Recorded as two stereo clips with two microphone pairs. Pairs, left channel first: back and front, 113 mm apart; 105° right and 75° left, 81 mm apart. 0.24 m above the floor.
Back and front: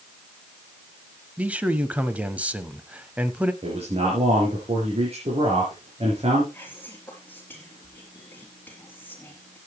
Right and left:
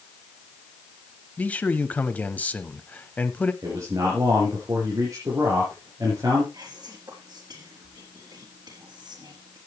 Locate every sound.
1.4 s a man speaking: 65° right, 1.0 m
3.6 s a man speaking: 30° left, 4.5 m
6.5 s whispering: 105° left, 4.5 m